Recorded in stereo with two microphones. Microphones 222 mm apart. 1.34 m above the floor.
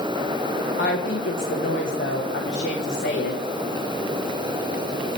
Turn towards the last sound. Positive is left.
turn(degrees=55)  # may be behind; listen again after turning